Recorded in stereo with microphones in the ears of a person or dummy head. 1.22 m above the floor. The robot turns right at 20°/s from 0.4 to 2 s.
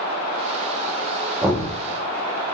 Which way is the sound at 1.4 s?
5° right (ahead or behind).